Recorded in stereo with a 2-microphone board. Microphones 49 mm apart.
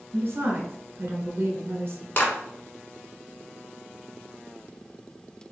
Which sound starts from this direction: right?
A woman speaking, at 0.1 s.